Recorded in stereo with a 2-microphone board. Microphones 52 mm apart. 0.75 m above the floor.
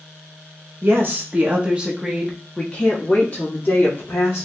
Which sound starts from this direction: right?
A woman speaking, at 0.8 s.